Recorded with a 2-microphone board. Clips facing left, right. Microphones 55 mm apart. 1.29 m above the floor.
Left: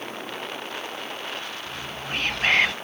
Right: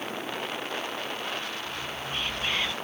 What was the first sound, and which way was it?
Whispering, 65° left (ahead or behind).